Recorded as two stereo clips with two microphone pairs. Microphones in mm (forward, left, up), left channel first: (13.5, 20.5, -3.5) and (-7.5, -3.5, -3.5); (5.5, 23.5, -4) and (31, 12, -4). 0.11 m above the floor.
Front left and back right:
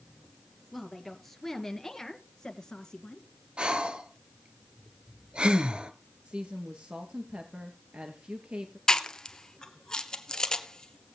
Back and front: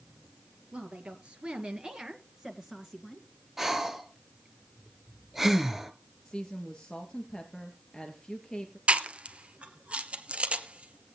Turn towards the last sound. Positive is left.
turn(degrees=-10)